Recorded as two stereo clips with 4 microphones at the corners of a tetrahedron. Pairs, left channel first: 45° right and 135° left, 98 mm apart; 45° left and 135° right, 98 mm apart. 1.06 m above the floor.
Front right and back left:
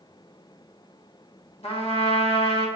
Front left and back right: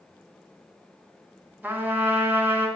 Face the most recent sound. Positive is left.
turn(degrees=-60)